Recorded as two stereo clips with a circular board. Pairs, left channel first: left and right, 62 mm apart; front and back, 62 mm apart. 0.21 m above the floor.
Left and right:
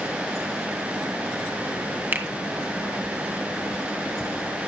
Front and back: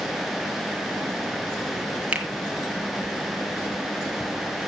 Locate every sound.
2.1 s a finger snap: 125° right, 1.7 m